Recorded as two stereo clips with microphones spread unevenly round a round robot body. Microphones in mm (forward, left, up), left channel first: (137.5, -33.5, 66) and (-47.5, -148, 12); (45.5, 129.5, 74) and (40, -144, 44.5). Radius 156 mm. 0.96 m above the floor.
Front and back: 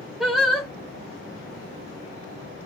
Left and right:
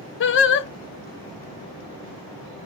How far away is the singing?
About 0.5 m.